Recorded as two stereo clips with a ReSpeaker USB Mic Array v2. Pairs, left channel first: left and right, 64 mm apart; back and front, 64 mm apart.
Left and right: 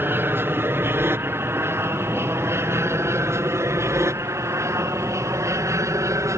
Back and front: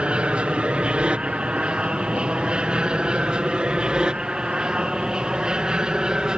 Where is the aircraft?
60° right; by 6.4 s 75° right.